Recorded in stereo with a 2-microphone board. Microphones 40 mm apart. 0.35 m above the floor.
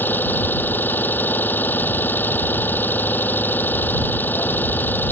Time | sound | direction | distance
0.0 | an engine running | 55° left (ahead or behind) | ?